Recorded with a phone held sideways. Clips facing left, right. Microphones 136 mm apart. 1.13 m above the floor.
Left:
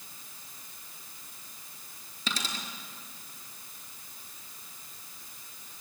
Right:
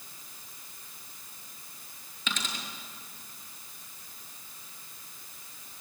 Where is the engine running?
No engine running in this recording.